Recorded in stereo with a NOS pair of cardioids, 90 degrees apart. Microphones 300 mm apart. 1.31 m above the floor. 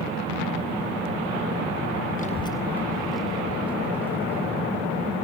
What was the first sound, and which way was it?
A child speaking, 30° left.